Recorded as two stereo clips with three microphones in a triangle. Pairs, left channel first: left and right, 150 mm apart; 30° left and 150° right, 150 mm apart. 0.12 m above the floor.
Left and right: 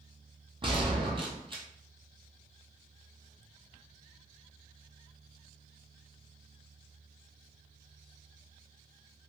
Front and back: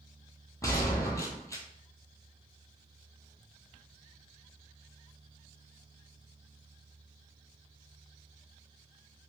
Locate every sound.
0.6 s a gunshot: 40° right, 0.8 m